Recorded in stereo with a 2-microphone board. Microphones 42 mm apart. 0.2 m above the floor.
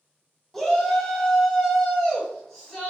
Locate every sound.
0.5 s a shout: 5° left (ahead or behind), 1.2 m